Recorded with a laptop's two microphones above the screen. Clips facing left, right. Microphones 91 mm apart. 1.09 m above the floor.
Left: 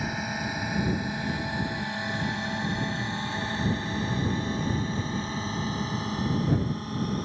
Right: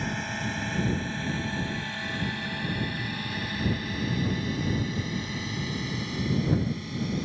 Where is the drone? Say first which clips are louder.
Left 1 dB; 5° left (ahead or behind); by 7.2 s 45° left (ahead or behind).